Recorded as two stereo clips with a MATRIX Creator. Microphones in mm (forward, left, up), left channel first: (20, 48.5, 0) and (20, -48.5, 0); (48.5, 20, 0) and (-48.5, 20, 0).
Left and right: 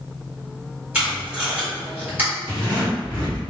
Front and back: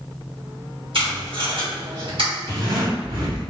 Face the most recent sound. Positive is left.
turn(degrees=-145)